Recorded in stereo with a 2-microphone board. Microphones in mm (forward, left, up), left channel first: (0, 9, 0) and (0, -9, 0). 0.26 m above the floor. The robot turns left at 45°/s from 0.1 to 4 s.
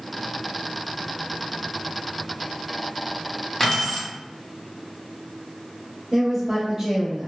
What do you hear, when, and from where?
3.6 s keys jangling: 25° left (ahead or behind), 1.2 m; by 4.1 s 35° left (ahead or behind), 1.2 m
6.1 s a woman speaking: 15° right (ahead or behind), 0.9 m